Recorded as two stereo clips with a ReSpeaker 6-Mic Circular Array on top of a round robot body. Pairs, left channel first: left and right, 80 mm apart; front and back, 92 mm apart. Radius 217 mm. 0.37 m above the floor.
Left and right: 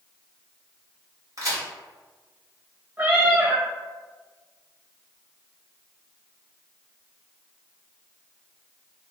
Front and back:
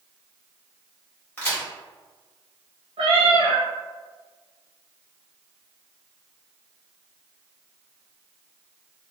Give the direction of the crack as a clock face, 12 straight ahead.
2 o'clock.